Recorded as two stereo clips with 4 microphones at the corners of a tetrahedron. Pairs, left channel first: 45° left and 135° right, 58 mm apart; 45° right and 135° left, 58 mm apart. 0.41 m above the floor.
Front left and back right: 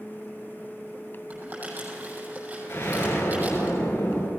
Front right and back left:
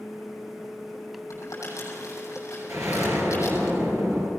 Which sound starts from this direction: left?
An explosion, at 2.7 s.